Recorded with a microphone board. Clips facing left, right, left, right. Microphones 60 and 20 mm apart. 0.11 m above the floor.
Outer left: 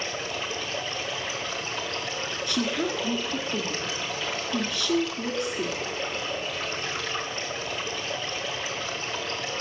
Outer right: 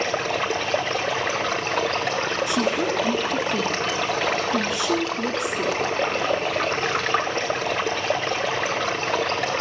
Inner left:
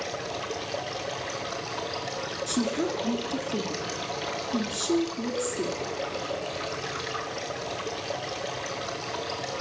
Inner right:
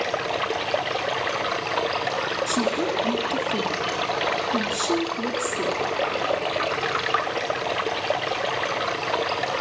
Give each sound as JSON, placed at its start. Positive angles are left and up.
{"t": 0.0, "sound": "running water", "side_deg": -55, "distance_m": 1.2}
{"t": 2.5, "sound": "a woman speaking", "side_deg": -15, "distance_m": 1.6}